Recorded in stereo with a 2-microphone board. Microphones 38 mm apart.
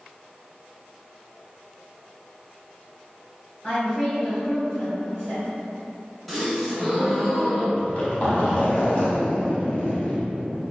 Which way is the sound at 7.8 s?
35° left (ahead or behind).